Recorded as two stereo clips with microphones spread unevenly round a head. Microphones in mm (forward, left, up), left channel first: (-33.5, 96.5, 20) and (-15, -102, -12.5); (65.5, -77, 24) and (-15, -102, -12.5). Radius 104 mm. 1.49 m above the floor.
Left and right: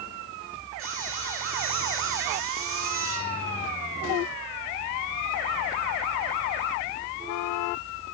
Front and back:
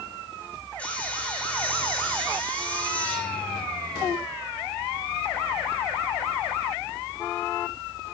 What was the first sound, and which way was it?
Sawing, 50° right.